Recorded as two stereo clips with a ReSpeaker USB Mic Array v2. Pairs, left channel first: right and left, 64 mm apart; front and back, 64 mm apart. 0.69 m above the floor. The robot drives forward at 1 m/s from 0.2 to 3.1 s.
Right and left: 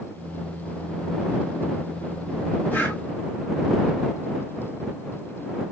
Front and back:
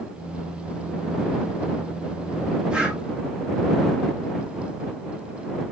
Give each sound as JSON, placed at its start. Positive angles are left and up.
{"t": 2.7, "sound": "breathing", "azimuth_deg": -120, "distance_m": 1.3}